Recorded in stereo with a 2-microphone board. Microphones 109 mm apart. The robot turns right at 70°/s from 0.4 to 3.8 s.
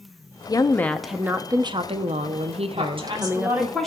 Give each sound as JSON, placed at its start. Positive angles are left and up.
{"t": 0.5, "sound": "a woman speaking", "azimuth_deg": 140, "distance_m": 0.6}
{"t": 2.8, "sound": "a woman speaking", "azimuth_deg": -70, "distance_m": 1.6}